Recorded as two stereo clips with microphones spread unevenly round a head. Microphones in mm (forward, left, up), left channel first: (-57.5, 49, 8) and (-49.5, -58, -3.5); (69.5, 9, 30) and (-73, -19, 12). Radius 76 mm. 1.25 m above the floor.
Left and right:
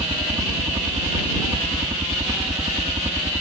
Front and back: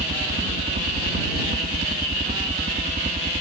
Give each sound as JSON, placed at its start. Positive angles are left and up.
{"t": 0.0, "sound": "a helicopter", "azimuth_deg": -135}